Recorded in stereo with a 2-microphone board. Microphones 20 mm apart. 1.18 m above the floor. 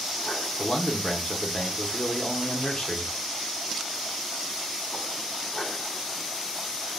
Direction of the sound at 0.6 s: 35° left (ahead or behind).